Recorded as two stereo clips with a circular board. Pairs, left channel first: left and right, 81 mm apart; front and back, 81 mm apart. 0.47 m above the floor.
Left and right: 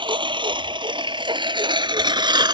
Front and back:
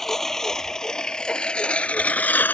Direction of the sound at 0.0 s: 85° right.